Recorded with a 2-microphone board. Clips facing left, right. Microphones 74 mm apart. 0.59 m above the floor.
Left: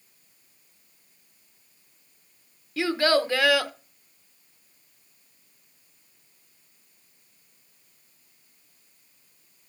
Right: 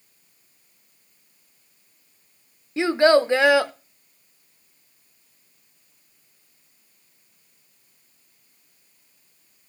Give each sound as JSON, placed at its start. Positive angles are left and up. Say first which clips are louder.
{"t": 2.8, "sound": "a child speaking", "louder": "right 6 dB", "side_deg": -25, "distance_m": 0.6}